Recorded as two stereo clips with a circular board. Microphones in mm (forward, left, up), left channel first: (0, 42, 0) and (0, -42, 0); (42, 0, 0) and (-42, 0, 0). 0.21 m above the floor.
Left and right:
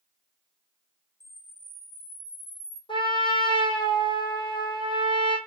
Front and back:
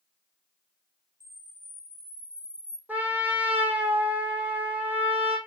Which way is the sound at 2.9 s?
110° left.